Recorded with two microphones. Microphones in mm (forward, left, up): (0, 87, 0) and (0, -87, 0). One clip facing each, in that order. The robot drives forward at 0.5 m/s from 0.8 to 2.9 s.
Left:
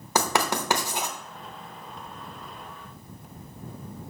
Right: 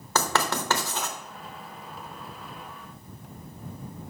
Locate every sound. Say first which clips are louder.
0.1 s writing: left 1 dB; 15° left (ahead or behind), 0.9 m